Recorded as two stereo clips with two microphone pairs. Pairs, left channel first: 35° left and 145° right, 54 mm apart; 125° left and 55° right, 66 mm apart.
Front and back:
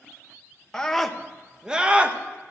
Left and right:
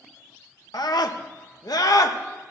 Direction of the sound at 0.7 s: 110° left.